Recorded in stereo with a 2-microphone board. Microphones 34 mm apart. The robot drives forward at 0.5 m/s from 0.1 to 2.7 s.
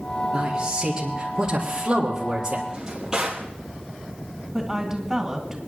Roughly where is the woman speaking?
Centre.